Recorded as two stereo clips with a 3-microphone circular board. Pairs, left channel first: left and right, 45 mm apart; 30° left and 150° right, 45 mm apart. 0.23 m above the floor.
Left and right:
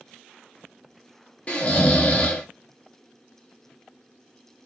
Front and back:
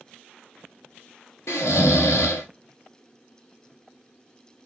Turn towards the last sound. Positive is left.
turn(degrees=35)